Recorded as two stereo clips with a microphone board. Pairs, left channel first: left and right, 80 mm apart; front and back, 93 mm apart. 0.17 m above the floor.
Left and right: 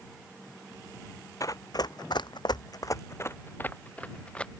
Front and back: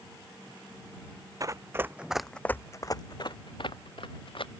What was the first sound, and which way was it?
Running footsteps, 130° left.